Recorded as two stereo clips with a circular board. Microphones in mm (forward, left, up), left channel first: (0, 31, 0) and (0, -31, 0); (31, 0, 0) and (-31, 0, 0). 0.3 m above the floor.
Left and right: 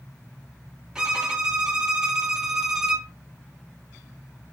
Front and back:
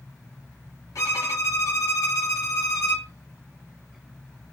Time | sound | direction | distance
0.9 | a violin | 10° right | 0.7 m